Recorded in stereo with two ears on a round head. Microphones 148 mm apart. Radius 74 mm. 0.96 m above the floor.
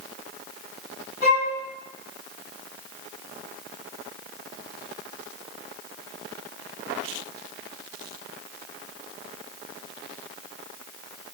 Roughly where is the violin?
Left.